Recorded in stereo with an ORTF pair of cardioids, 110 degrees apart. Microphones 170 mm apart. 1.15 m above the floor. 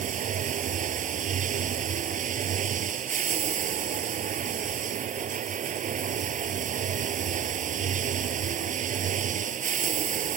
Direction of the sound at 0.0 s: 45° right.